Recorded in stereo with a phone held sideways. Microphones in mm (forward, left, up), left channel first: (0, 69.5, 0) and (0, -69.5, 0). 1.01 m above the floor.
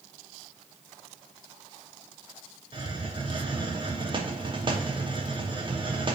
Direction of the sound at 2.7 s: 35° right (ahead or behind).